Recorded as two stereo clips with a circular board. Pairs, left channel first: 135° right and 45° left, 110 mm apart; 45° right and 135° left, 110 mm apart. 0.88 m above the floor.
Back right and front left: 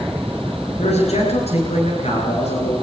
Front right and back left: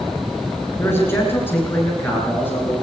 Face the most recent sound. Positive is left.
turn(degrees=-115)